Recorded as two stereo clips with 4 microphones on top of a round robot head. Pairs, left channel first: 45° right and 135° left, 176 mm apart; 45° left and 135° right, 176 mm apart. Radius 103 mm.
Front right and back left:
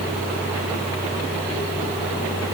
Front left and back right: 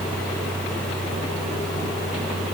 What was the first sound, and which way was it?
Only background noise.